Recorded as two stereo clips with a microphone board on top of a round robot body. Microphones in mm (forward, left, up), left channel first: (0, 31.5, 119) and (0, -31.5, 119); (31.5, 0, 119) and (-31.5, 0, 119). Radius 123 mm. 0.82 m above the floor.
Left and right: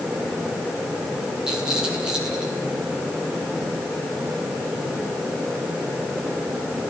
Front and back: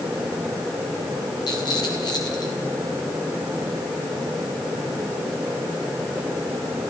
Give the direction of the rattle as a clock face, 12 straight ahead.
12 o'clock.